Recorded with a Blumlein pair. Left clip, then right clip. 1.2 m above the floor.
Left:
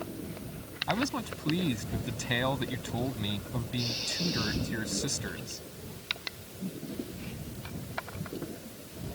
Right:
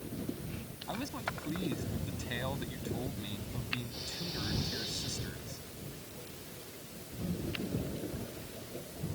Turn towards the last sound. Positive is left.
turn(degrees=65)